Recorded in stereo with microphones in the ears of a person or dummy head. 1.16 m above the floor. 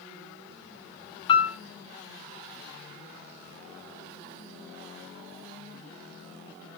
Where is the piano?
25° left (ahead or behind), 2 m.